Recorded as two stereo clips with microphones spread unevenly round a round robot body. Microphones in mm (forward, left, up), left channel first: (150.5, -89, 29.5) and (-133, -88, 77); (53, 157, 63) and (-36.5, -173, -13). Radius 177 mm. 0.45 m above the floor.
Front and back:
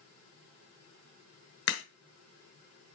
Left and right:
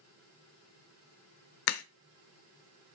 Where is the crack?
50° left, 1.1 m.